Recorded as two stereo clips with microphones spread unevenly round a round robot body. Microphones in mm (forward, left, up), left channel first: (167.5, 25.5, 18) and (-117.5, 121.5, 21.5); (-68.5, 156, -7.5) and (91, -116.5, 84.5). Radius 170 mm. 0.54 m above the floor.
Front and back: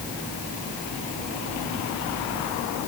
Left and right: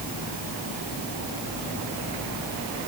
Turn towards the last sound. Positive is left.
No sound to turn to.